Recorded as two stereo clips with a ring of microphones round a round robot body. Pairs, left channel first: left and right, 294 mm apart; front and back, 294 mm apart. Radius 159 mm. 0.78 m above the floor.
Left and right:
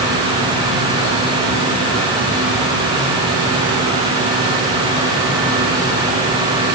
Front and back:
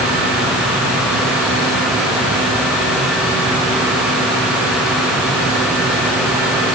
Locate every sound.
Only background noise.